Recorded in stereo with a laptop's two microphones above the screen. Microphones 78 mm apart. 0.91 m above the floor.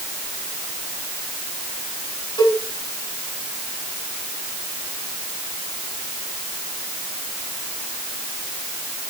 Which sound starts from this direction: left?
A cowbell, at 2.4 s.